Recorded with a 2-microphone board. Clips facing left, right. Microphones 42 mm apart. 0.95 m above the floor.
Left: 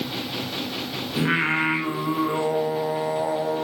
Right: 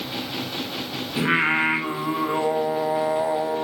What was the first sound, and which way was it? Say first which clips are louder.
Singing: right 2 dB; 15° right (ahead or behind).